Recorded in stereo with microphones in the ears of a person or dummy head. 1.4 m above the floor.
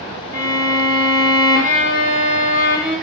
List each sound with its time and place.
0.3 s a violin: 15° right (ahead or behind), 1.4 m